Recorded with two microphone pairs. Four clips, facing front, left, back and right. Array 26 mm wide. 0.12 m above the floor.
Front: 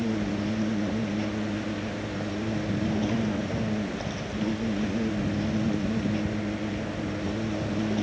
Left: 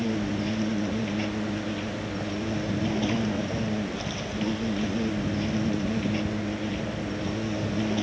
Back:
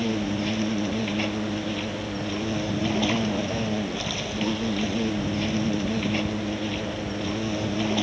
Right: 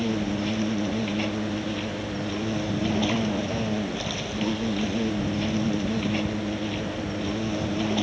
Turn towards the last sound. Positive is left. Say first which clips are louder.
# right 1 dB, back 2 dB
turn(degrees=-160)